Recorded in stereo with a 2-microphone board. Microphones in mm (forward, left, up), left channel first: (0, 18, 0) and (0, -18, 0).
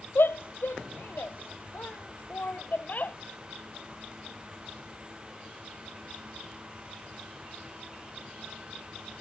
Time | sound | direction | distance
0.1 | a shout | 75° left (ahead or behind) | ?